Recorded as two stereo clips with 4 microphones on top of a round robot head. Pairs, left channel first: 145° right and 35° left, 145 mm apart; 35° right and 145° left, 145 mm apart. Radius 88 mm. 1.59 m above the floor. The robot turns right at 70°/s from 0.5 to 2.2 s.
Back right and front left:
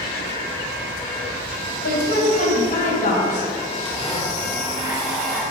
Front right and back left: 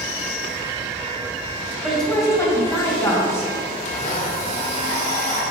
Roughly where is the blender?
Ahead right.